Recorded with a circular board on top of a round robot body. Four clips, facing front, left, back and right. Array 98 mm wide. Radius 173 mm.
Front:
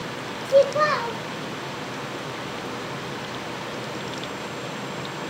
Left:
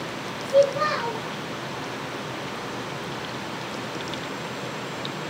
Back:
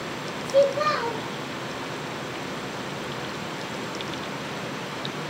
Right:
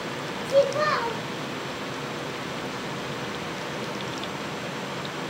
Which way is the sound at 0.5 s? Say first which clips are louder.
Left 2 dB, front 2 dB; 25° right.